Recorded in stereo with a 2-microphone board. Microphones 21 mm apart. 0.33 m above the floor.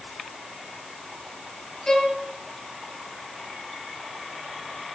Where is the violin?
35° left (ahead or behind), 2.5 m.